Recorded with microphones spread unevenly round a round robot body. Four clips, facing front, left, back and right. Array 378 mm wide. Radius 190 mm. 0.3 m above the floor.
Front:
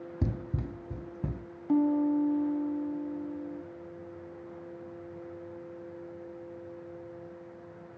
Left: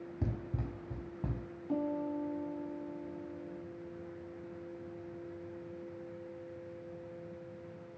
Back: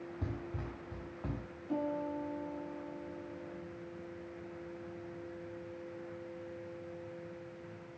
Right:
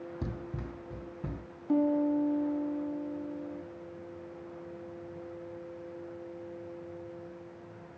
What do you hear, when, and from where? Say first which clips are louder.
0.2 s running footsteps: left 2 dB, front 9 dB; 10° right, 0.5 m; by 1.4 s 20° left, 1.4 m
1.7 s a piano: right 8 dB, front 11 dB; 25° right, 1.8 m